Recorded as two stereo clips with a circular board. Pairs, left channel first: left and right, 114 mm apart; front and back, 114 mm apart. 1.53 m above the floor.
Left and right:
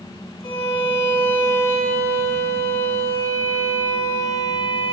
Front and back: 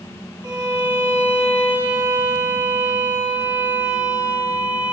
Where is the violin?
100° left, 3.5 m.